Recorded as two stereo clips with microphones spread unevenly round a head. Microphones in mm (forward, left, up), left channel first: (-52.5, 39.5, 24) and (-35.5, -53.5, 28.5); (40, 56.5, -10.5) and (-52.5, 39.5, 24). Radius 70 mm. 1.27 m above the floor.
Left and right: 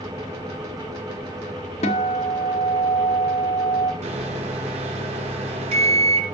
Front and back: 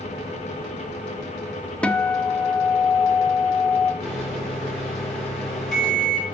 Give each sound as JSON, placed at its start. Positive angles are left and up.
{"t": 1.8, "sound": "a guitar", "azimuth_deg": 100, "distance_m": 1.3}
{"t": 4.0, "sound": "a microwave", "azimuth_deg": -80, "distance_m": 3.0}